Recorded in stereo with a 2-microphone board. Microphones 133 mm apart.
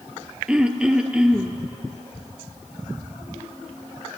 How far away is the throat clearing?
About 0.7 m.